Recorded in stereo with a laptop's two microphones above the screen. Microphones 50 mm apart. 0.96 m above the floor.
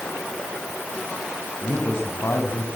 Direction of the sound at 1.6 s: 60° left (ahead or behind).